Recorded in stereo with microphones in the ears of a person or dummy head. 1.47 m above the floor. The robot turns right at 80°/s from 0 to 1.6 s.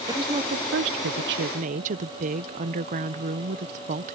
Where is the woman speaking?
170° right; by 4.2 s 50° right.